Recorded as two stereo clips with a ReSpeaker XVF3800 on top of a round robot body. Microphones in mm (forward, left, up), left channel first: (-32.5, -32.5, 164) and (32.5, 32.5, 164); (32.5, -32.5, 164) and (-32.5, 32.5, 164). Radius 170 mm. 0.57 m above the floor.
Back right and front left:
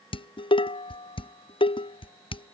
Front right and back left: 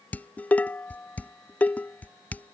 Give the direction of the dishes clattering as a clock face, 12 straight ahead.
4 o'clock.